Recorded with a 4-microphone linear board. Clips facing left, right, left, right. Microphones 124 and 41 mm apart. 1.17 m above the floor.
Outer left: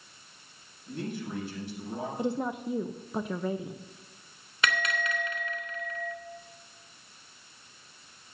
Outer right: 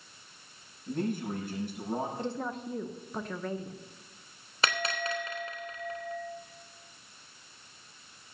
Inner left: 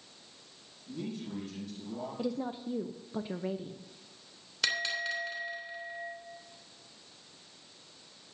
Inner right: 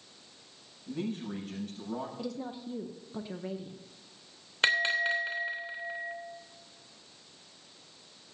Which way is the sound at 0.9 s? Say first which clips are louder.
Outer right 4 dB, inner right 4 dB; 50° right (ahead or behind).